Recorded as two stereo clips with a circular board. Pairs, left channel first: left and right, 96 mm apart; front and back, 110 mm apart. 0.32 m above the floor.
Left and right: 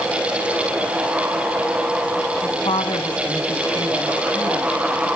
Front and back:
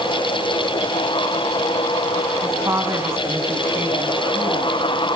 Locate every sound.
2.4 s a woman speaking: 115° left, 3 m